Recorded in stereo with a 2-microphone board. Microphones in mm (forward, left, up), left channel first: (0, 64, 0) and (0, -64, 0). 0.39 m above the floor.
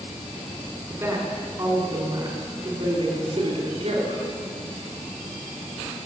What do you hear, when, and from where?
0.9 s a woman speaking: 20° right (ahead or behind), 3 m; by 4.2 s 55° right (ahead or behind), 3 m